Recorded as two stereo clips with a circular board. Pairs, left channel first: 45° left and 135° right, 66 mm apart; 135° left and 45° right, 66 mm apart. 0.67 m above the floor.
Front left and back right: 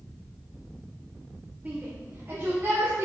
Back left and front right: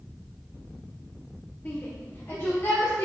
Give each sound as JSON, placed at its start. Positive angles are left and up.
{"t": 1.6, "sound": "a shout", "azimuth_deg": 175, "distance_m": 0.8}